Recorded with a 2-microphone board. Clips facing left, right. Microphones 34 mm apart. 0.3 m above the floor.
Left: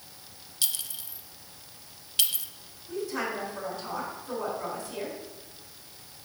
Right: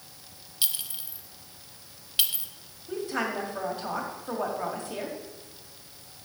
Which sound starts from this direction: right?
A woman speaking, at 2.9 s.